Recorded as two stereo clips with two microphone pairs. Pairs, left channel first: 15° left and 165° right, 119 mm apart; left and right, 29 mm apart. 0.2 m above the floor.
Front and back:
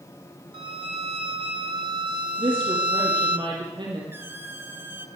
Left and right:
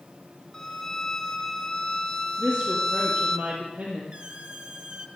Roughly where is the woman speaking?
Behind right.